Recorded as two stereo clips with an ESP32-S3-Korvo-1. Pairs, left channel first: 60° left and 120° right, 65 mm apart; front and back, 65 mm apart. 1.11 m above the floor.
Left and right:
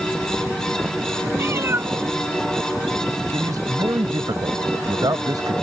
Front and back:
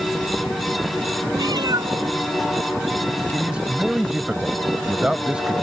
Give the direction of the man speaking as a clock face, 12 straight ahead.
3 o'clock.